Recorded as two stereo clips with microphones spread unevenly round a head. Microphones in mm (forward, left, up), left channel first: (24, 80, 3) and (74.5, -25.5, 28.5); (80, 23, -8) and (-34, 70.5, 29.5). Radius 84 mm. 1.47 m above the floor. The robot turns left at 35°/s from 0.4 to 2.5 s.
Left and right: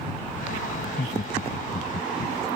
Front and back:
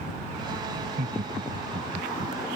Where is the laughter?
165° left; by 2.4 s 115° left.